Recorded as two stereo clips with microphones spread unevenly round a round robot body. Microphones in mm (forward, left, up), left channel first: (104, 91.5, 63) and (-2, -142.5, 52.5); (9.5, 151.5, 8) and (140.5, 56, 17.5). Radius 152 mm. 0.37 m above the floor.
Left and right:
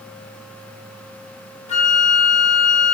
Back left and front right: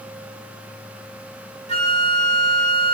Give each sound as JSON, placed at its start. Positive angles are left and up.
{"t": 1.7, "sound": "a flute", "azimuth_deg": 5, "distance_m": 1.2}